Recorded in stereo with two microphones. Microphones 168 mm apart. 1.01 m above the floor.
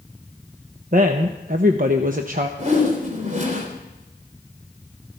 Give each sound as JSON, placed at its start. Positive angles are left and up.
{"t": 0.9, "sound": "a woman speaking", "side_deg": -55, "distance_m": 0.9}
{"t": 2.6, "sound": "a whoosh", "side_deg": -45, "distance_m": 3.0}